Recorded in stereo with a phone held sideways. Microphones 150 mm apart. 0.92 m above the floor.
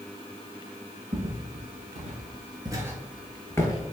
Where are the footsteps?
60° right (ahead or behind), 1.8 m; by 3.8 s 30° left (ahead or behind), 1.0 m.